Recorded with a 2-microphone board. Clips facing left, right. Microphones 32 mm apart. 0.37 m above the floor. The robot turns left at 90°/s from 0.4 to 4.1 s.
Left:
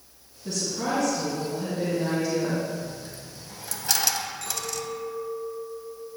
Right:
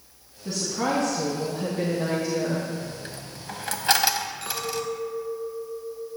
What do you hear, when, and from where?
0.5 s a woman speaking: 10° right, 2.5 m; by 2.7 s 150° left, 2.5 m
2.8 s a dropped coin: 35° right (ahead or behind), 0.8 m; by 4.9 s 25° right (ahead or behind), 0.8 m
4.4 s a clink: 40° right (ahead or behind), 2.5 m